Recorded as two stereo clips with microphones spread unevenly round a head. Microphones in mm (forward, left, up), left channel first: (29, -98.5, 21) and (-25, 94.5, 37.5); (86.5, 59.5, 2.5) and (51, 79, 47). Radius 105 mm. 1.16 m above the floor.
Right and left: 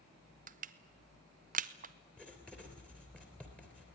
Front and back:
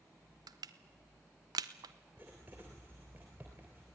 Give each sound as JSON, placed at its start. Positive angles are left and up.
{"t": 0.5, "sound": "crushing", "azimuth_deg": 150, "distance_m": 0.7}
{"t": 2.2, "sound": "writing", "azimuth_deg": -160, "distance_m": 3.0}